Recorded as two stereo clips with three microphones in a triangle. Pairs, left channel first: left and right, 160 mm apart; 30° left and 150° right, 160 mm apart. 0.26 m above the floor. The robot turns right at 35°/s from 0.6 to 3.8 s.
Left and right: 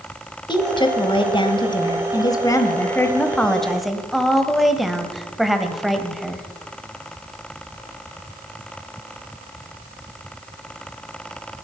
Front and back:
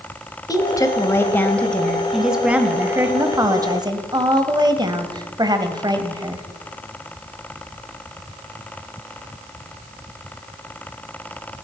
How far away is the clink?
I don't hear a clink.